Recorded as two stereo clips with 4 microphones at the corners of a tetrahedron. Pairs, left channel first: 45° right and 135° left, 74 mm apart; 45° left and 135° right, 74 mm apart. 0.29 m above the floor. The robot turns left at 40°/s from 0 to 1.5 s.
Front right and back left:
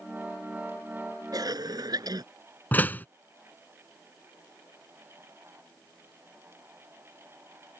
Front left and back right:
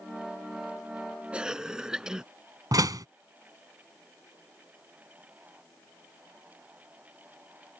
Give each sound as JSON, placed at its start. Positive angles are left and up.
{"t": 1.3, "sound": "a cough", "azimuth_deg": 150}
{"t": 2.7, "sound": "a door slam", "azimuth_deg": -110}